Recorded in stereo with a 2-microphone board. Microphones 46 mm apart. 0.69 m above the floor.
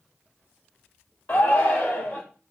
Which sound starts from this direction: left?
A shout, at 1.3 s.